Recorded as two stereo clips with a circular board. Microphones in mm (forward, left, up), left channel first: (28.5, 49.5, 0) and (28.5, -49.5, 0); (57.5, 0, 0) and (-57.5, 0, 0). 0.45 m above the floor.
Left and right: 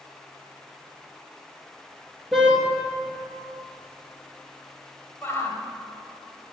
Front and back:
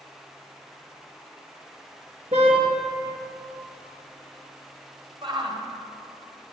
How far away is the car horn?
About 2.5 m.